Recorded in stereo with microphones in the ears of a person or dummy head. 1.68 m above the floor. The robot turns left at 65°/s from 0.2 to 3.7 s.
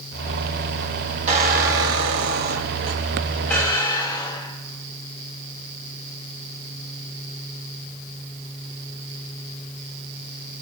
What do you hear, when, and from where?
1.3 s a squeak: 40° right, 1.6 m; by 4.9 s 160° left, 1.6 m